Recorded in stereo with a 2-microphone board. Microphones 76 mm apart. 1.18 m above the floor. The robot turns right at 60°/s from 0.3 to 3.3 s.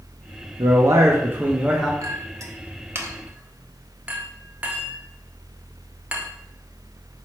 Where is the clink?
45° right (ahead or behind), 0.6 m; by 6.3 s 20° right (ahead or behind), 0.6 m.